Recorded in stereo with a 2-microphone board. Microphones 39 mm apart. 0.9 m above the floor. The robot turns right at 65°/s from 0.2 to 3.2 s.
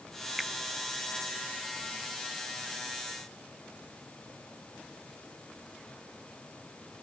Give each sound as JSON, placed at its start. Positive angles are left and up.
{"t": 0.4, "sound": "a finger snap", "side_deg": 0}